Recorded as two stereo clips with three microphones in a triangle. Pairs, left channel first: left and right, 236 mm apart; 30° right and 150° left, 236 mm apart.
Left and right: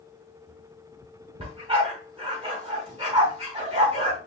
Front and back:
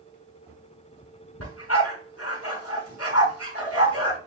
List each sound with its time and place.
1.4 s a dog barking: 25° right, 4.5 m